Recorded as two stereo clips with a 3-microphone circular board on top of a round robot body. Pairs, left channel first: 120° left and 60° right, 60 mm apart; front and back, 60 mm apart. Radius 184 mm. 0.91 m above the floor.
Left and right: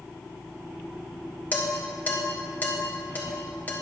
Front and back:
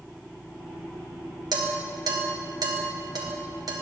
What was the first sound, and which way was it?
Dishes clattering, 175° right.